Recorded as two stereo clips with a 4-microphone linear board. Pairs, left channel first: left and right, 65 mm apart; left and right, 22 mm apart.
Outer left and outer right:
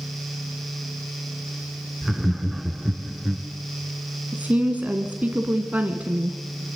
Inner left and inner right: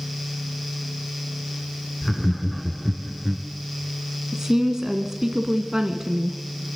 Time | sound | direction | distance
2.0 | laughter | 5° right (ahead or behind) | 1.8 m
4.3 | a woman speaking | 25° right (ahead or behind) | 1.8 m